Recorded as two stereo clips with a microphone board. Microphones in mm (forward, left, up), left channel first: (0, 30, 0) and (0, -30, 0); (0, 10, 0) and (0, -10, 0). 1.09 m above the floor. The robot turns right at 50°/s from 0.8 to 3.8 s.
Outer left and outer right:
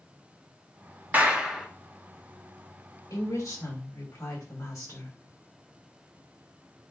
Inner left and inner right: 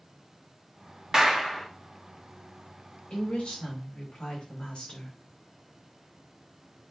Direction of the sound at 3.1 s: 75° left.